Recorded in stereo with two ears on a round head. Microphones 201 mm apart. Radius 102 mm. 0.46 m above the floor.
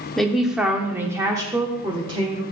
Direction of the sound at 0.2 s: Centre (ahead or behind).